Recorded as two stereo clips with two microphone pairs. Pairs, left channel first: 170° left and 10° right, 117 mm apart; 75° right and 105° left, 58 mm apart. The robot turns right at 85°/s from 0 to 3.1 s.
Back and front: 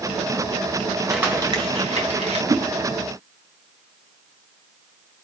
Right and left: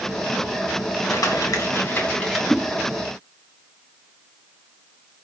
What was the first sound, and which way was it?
Crumpling, 100° right.